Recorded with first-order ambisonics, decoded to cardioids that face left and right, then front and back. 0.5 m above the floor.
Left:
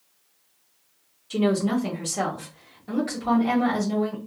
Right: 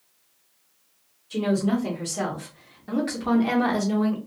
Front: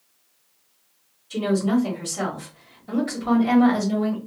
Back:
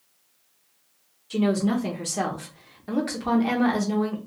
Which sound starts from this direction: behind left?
A woman speaking, at 1.3 s.